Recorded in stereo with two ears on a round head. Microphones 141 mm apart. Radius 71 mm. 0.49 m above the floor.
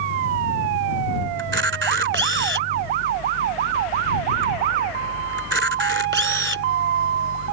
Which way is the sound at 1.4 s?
90° right.